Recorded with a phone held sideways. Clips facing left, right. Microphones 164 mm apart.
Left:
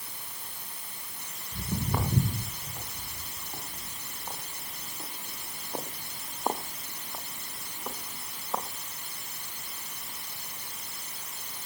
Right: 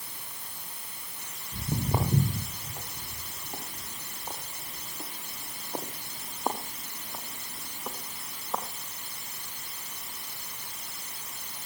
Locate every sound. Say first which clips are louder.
1.5 s footsteps: right 2 dB; 30° right (ahead or behind), 9 m; by 8.7 s 5° left (ahead or behind), 5 m